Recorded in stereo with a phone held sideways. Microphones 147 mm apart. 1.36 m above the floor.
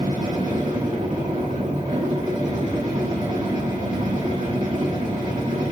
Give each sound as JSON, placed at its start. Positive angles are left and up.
{"t": 0.0, "sound": "a machine running", "side_deg": -60, "distance_m": 1.7}